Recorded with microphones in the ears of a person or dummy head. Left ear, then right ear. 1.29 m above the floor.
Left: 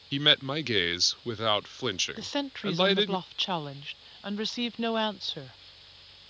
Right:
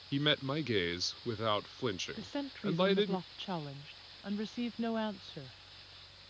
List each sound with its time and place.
0.1 s a man speaking: 20° left (ahead or behind)
2.2 s a woman speaking: 35° left (ahead or behind)